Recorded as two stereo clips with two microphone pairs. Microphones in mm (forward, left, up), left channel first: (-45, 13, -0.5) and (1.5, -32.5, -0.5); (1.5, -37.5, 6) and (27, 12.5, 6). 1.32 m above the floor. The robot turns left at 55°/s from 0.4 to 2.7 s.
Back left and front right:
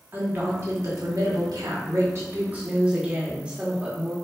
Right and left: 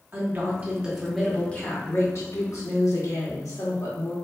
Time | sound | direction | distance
0.1 | a woman speaking | 10° left | 1.5 m